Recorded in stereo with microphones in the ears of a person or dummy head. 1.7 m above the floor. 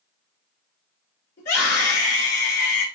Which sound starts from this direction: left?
A scream, at 1.4 s.